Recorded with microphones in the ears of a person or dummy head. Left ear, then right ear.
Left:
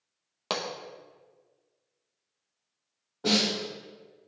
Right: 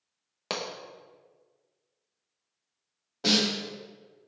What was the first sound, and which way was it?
A pop, 5° left (ahead or behind).